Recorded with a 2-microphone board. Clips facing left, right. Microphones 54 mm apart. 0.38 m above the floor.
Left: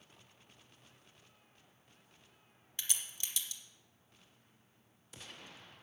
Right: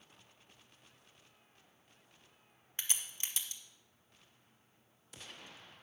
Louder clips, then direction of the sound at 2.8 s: Right 1 dB; 35° right (ahead or behind).